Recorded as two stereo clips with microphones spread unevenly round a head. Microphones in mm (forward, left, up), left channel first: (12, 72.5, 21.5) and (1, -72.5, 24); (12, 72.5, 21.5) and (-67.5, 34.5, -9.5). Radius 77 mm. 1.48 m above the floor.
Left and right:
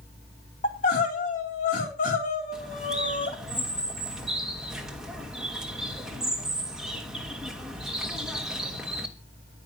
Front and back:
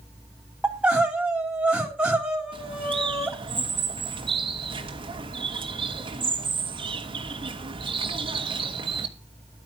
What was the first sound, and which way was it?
Crying, 125° left.